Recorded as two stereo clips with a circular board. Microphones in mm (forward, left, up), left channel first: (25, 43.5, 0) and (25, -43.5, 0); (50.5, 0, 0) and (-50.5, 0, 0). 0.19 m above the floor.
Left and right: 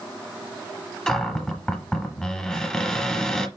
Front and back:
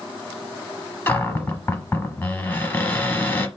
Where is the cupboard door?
20° left, 1.1 m.